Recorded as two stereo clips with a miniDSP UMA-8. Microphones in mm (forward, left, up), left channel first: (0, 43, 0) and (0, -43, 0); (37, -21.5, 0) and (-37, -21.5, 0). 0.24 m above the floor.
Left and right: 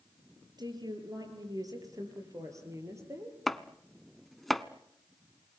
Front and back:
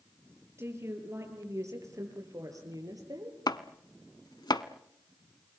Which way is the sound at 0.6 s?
125° right.